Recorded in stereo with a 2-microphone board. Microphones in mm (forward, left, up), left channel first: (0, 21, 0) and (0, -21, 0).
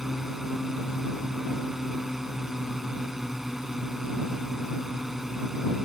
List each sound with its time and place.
0.0 s a drone: 10° right (ahead or behind)